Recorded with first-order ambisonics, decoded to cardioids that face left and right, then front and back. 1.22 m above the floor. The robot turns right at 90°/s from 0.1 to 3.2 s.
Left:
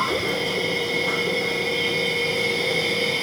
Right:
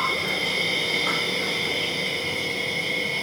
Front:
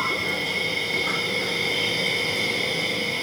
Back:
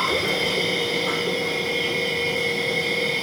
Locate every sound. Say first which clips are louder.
0.0 s an insect: left 1 dB, back 3 dB; 175° right, 2.5 m; by 3.2 s 105° left, 2.5 m